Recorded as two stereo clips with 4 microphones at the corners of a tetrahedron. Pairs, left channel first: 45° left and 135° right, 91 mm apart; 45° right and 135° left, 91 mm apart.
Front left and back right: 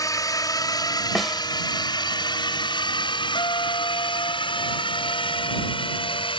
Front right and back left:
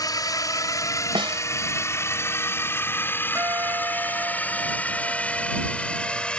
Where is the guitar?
75° left.